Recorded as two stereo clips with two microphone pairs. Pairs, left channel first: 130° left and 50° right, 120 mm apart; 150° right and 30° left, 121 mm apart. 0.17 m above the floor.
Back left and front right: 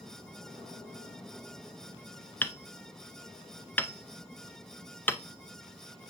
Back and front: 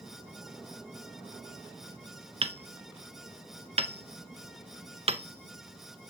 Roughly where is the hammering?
Ahead left.